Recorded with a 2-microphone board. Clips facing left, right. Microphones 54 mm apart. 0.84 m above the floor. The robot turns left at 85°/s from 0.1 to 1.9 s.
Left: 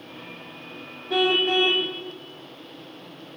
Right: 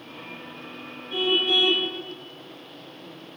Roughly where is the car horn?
Left.